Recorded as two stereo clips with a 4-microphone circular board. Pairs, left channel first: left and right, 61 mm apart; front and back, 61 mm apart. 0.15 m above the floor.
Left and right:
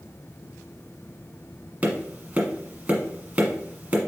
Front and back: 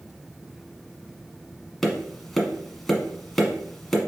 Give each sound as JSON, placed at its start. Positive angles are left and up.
{"t": 1.8, "sound": "tapping", "azimuth_deg": -80, "distance_m": 1.2}